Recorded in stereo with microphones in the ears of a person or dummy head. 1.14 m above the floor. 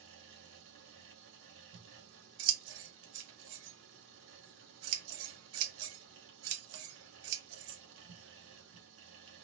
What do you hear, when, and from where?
0.0 s a fan: 65° right (ahead or behind), 1.0 m
1.7 s scissors: 75° right (ahead or behind), 0.9 m